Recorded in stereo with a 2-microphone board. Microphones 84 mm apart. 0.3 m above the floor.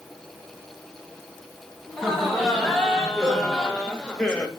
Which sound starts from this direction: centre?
Laughter, at 1.9 s.